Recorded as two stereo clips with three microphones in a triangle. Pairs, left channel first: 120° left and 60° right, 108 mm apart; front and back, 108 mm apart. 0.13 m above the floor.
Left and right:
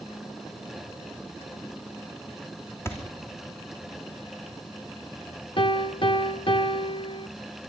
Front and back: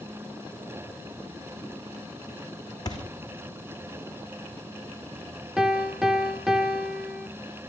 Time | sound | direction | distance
2.9 | a thud | 50° left | 3 m
5.6 | a piano | 95° left | 0.7 m